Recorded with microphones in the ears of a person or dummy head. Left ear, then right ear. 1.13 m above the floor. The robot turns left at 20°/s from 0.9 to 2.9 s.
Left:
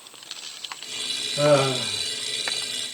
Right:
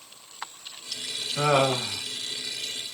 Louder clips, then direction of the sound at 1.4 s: Left 3 dB; 50° right (ahead or behind).